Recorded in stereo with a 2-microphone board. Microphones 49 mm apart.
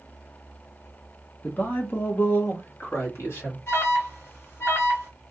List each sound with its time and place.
1.4 s a man speaking: 35° left (ahead or behind), 1.0 m; by 3.6 s 60° left (ahead or behind), 2.5 m
3.7 s an alarm: 60° left (ahead or behind), 2.5 m